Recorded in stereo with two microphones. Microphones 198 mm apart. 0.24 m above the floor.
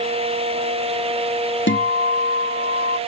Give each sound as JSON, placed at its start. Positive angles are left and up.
{"t": 1.7, "sound": "a guitar", "side_deg": 80}